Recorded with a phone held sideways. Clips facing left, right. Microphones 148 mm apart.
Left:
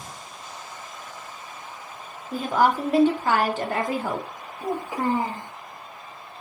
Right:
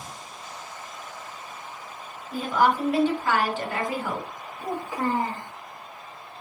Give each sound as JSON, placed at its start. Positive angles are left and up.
{"t": 2.3, "sound": "a woman speaking", "side_deg": 40, "distance_m": 0.9}
{"t": 4.6, "sound": "a child speaking", "side_deg": 20, "distance_m": 0.7}